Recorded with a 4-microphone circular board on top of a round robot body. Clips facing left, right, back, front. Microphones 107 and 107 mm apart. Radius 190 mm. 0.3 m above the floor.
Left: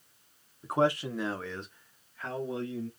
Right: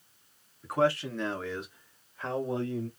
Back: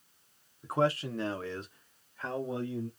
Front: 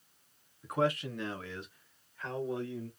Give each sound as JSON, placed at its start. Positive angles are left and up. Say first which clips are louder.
{"t": 0.6, "sound": "a man speaking", "louder": "even, back 2 dB", "azimuth_deg": 140, "distance_m": 1.1}